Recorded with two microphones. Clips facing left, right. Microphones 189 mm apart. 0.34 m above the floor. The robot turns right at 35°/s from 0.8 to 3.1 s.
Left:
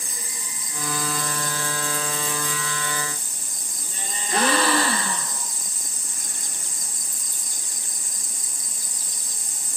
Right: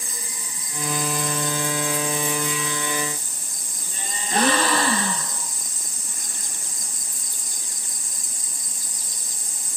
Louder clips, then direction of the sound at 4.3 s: Even; 35° right (ahead or behind).